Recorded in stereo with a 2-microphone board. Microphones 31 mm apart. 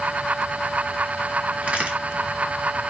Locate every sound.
1.6 s a crack: 55° right (ahead or behind), 1.7 m